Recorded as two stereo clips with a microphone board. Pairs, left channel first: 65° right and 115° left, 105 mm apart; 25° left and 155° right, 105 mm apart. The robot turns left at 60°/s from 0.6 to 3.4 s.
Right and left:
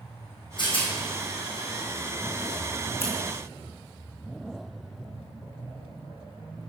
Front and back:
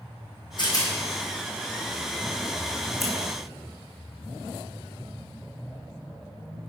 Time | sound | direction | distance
0.6 | a rattle | 25° right | 2.5 m
3.0 | scissors | 70° right | 1.9 m